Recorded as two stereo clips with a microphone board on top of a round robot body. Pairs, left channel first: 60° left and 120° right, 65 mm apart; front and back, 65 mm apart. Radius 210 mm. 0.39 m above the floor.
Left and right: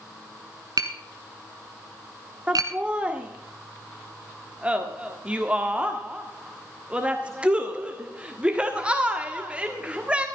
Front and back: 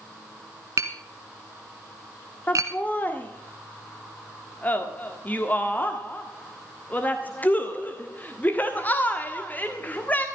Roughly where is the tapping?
Behind right.